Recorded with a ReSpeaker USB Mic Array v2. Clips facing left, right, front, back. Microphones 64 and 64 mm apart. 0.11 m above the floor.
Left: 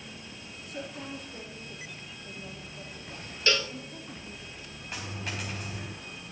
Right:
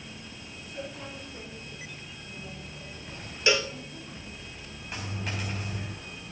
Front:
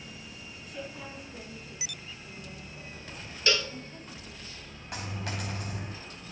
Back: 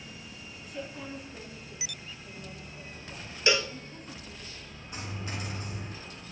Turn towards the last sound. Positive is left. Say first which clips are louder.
# right 1 dB, front 2 dB
turn(degrees=5)